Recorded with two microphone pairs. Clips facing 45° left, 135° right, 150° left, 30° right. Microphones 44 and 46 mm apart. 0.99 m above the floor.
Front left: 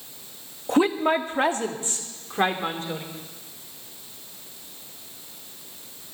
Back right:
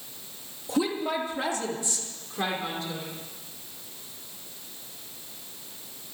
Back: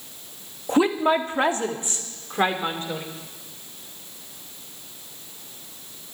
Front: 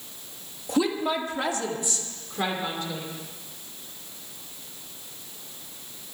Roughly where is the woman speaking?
Left.